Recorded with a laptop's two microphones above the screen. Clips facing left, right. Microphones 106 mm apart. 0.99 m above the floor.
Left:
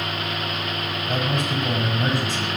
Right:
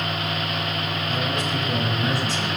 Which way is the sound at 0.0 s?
35° right (ahead or behind).